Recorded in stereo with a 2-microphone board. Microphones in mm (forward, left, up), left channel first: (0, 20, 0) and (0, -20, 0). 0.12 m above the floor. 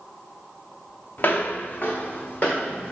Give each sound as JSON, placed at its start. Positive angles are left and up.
{"t": 1.2, "sound": "footsteps", "side_deg": 50, "distance_m": 0.9}